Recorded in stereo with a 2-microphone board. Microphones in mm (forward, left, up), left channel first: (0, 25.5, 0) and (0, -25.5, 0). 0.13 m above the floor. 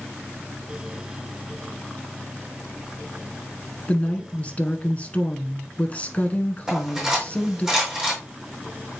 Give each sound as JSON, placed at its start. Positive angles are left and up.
{"t": 3.9, "sound": "a woman speaking", "side_deg": 25, "distance_m": 1.1}
{"t": 6.7, "sound": "cutlery clinking", "side_deg": -15, "distance_m": 4.5}